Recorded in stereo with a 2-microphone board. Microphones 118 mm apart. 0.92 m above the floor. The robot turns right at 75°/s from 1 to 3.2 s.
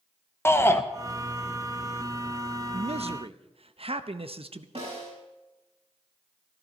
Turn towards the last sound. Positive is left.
turn(degrees=-60)  # may be behind; listen again after turning